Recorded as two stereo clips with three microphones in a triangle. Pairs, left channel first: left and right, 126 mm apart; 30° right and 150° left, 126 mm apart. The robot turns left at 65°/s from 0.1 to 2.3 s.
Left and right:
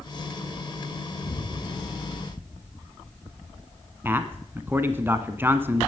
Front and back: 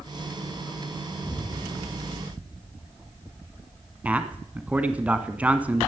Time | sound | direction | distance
1.2 | an explosion | 55° left | 2.5 m
4.0 | a man speaking | 145° right | 1.1 m